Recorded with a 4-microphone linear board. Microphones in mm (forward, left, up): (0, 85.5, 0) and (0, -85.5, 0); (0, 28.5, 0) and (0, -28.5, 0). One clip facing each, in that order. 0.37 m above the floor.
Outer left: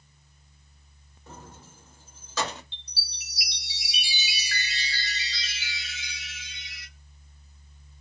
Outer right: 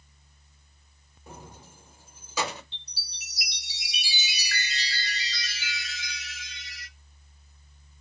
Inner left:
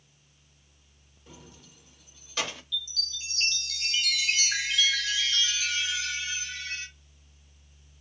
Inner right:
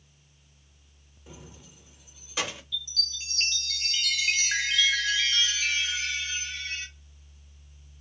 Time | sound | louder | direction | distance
1.3 | keys jangling | even, inner right 2 dB | 15° right (ahead or behind) | 0.5 m
2.7 | a chime | outer left 3 dB, even | 40° right (ahead or behind) | 1.3 m